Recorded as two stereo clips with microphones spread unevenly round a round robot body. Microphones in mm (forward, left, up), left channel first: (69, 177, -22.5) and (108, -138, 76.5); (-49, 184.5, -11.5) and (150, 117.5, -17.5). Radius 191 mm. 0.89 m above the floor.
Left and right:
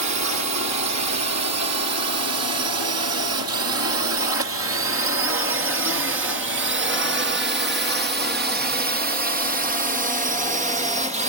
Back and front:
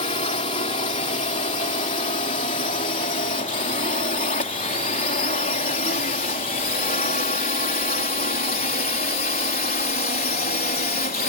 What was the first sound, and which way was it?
A drone, 130° right.